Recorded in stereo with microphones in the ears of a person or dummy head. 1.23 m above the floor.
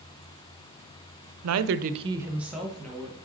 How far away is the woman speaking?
About 0.5 m.